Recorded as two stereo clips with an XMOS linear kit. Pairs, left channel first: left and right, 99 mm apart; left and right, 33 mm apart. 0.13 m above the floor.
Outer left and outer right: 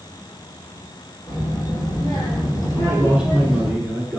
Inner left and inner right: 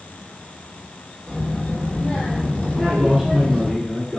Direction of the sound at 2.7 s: 10° right (ahead or behind).